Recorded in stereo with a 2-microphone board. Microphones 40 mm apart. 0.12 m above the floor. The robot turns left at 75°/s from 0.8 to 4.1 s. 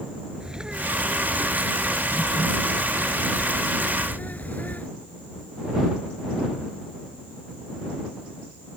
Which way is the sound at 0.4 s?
30° right.